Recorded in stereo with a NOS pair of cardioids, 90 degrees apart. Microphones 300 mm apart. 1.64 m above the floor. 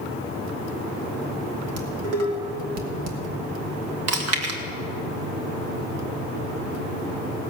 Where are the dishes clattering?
65° right, 2 m.